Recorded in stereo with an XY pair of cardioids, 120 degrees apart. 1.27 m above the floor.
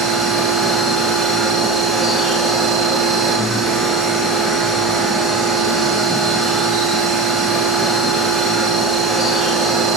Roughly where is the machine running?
Ahead right.